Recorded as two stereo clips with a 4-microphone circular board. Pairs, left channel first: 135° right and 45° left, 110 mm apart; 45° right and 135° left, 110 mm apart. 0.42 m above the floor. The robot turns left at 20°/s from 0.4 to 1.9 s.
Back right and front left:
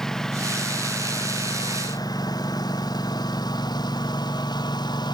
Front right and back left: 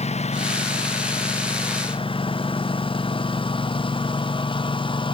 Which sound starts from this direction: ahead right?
A lawn mower, at 0.0 s.